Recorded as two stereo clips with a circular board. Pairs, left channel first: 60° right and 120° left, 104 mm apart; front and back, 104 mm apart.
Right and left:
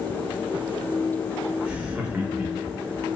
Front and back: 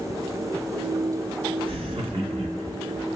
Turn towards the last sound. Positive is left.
turn(degrees=-165)